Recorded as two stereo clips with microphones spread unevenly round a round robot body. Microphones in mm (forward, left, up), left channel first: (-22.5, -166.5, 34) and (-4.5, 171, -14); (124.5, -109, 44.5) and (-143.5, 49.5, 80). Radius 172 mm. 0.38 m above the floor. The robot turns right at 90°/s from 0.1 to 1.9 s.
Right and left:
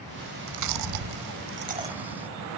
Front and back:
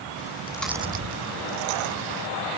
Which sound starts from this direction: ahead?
Chewing, at 0.2 s.